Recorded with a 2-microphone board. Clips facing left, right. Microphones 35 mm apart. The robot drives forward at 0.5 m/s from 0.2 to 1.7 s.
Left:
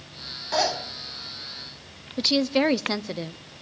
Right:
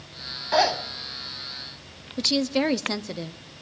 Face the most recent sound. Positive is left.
turn(degrees=10)  # may be behind; listen again after turning